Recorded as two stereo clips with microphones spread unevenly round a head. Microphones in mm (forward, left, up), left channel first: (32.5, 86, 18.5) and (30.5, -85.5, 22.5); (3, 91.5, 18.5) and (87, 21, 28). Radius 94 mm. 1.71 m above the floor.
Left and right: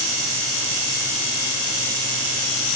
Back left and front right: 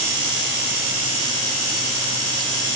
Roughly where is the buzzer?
No buzzer in this recording.